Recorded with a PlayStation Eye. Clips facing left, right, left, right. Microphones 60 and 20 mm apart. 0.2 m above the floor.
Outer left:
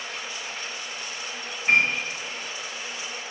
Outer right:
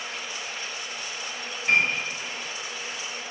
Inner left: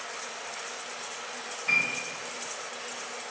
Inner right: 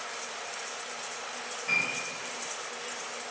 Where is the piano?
20° left (ahead or behind), 1.3 m.